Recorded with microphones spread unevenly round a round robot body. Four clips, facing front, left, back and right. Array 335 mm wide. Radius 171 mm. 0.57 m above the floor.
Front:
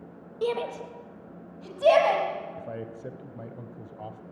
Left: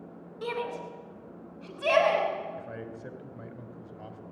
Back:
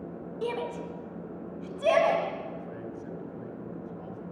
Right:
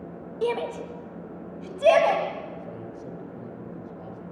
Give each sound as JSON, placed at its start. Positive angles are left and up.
{"t": 0.4, "sound": "a shout", "azimuth_deg": -50, "distance_m": 3.0}
{"t": 2.6, "sound": "a man speaking", "azimuth_deg": 5, "distance_m": 3.0}